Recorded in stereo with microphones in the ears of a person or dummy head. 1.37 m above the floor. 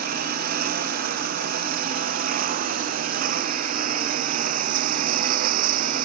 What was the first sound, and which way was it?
A lawn mower, 55° right (ahead or behind).